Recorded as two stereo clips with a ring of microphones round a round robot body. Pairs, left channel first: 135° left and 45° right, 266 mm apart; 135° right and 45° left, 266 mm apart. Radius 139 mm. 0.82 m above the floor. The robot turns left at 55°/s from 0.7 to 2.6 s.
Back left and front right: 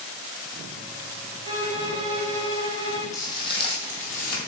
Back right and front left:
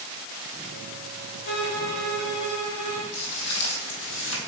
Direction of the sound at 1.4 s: 90° right.